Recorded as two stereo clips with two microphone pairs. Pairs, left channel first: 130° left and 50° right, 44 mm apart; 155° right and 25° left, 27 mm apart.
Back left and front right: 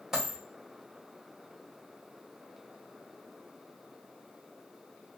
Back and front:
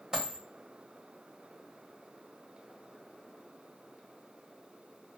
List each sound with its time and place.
0.1 s a dropped coin: 20° left, 1.7 m